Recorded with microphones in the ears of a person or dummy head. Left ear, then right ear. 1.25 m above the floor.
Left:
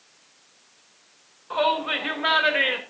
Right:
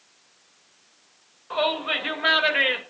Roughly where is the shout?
Centre.